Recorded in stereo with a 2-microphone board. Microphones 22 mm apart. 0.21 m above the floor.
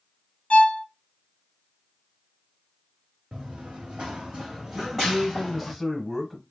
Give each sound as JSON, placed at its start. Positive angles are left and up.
{"t": 0.5, "sound": "a violin", "side_deg": 50, "distance_m": 0.9}
{"t": 3.3, "sound": "running footsteps", "side_deg": -80, "distance_m": 1.0}
{"t": 4.7, "sound": "a man speaking", "side_deg": -10, "distance_m": 1.3}